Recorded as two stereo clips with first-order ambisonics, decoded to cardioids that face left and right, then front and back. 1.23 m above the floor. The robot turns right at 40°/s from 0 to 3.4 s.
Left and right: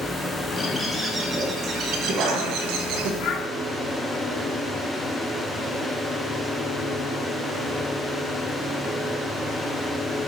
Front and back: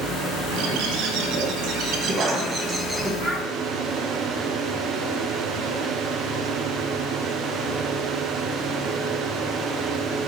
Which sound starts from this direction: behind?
A bird, at 0.5 s.